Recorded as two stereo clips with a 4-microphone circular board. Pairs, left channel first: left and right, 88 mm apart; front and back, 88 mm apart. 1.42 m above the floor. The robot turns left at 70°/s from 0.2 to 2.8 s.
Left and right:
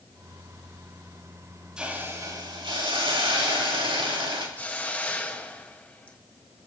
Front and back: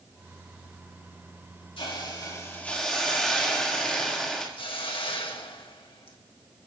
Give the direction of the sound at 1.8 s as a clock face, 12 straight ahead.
12 o'clock.